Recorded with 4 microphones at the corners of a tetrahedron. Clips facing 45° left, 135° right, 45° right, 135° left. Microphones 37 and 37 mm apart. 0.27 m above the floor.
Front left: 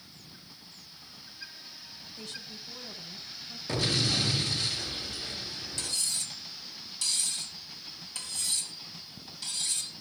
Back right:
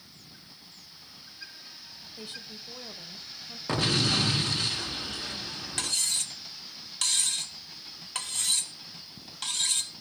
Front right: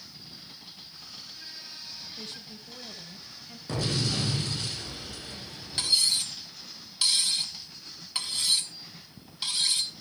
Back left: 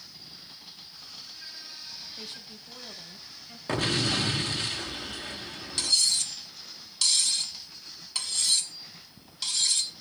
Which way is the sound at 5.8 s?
120° right.